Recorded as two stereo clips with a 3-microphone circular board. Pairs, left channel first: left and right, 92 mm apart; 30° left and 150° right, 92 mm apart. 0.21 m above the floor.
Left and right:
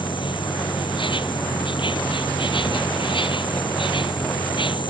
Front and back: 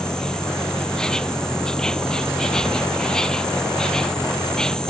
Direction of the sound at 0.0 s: 110° left.